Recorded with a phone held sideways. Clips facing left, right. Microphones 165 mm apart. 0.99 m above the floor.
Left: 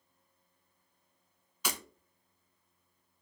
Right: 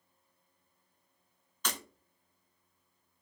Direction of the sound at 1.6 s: 10° left (ahead or behind).